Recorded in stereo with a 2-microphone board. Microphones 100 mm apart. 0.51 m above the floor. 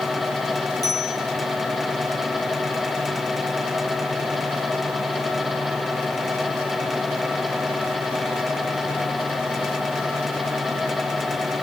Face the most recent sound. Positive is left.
turn(degrees=35)  # may be behind; listen again after turning